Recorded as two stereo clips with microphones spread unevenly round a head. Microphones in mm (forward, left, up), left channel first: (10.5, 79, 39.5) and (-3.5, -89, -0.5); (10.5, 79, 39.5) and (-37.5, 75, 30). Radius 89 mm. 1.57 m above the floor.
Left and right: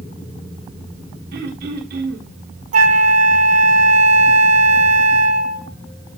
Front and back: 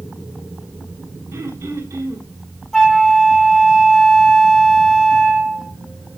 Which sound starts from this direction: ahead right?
A flute, at 2.7 s.